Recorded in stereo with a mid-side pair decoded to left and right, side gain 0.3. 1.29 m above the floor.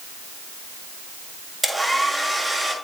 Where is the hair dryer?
5° right, 7 m.